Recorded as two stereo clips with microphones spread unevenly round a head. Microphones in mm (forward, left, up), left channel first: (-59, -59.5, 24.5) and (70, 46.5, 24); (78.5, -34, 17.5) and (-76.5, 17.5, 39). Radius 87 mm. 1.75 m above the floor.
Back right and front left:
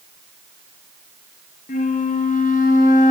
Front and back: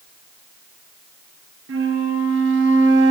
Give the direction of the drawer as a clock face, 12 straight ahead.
No drawer in this recording.